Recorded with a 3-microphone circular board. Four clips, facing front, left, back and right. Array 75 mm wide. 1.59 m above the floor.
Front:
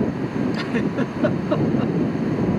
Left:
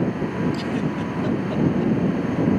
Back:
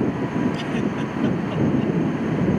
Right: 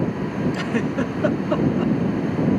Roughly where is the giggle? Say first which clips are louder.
Right 2 dB, front 2 dB; ahead right.